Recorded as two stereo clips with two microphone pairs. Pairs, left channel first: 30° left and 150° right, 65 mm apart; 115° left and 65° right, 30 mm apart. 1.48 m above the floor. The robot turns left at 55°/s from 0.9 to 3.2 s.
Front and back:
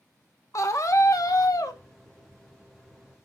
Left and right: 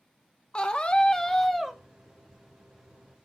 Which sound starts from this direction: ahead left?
A scream, at 0.5 s.